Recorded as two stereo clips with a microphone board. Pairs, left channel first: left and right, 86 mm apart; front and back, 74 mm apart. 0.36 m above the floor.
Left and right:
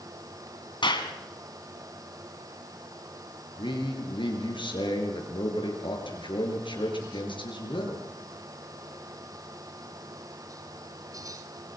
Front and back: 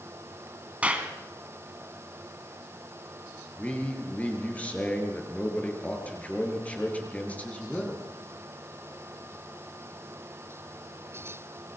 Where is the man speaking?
70° left, 5.5 m.